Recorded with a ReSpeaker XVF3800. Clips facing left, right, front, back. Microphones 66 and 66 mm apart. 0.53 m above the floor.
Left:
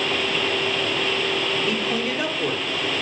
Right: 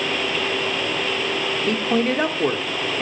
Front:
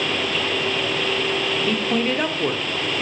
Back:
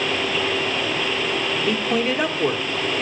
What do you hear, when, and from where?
1.7 s a man speaking: 100° right, 1.3 m